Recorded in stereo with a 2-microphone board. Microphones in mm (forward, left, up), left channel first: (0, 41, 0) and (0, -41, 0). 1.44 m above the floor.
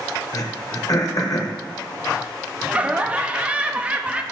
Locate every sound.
0.3 s throat clearing: 45° left (ahead or behind), 1.1 m
2.7 s laughter: 15° right (ahead or behind), 0.7 m